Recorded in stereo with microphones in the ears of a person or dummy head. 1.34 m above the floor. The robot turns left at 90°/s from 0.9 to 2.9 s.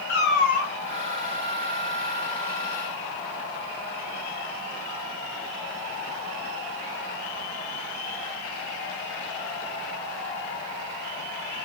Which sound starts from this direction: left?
A cat meowing, at 0.1 s.